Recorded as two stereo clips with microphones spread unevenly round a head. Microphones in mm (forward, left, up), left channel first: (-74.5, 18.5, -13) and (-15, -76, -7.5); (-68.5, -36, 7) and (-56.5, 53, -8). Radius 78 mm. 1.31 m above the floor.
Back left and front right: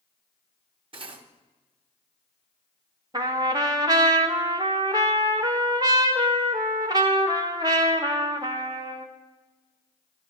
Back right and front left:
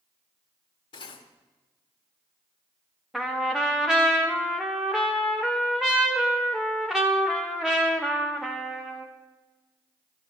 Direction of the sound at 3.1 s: Straight ahead.